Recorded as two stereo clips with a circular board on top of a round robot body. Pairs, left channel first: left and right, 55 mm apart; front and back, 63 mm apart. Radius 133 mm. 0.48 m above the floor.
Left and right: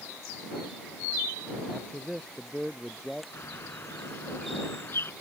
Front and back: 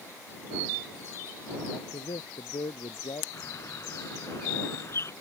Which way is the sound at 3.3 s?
45° left.